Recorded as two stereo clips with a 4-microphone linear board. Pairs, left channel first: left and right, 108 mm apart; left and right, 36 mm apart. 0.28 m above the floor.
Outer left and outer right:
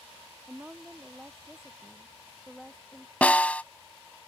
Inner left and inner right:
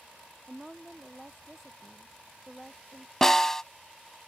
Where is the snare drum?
15° left (ahead or behind).